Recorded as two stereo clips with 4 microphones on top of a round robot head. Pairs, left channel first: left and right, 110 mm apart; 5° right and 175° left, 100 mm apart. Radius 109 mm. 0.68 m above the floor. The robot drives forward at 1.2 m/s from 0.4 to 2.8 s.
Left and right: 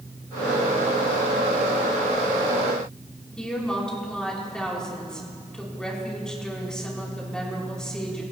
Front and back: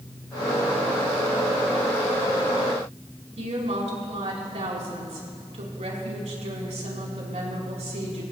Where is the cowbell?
No cowbell in this recording.